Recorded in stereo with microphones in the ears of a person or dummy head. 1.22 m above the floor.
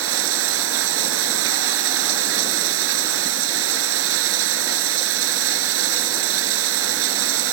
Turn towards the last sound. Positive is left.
turn(degrees=-85)